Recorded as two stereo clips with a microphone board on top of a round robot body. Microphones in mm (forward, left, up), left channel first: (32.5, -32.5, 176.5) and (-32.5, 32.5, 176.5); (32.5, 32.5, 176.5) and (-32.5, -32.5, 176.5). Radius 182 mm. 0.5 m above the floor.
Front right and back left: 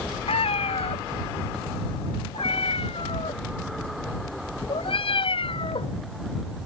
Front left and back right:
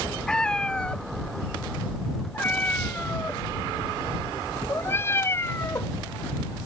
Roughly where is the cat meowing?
Ahead right.